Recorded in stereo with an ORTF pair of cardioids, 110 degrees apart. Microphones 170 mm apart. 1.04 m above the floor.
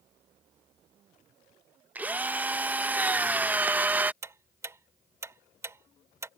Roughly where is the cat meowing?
I don't hear a cat meowing.